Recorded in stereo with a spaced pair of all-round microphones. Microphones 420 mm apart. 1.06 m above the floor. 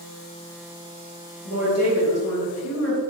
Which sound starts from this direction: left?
A woman speaking, at 1.4 s.